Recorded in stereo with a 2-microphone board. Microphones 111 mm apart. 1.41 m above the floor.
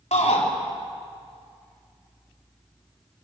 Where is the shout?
85° left, 3.5 m.